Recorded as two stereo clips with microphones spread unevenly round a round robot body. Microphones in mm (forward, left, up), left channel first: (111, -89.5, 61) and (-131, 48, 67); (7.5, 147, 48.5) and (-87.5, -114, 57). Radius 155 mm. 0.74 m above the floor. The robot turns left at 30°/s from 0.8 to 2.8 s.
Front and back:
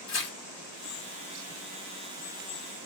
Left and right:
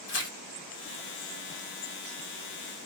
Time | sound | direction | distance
0.1 | tearing paper | 15° left | 1.0 m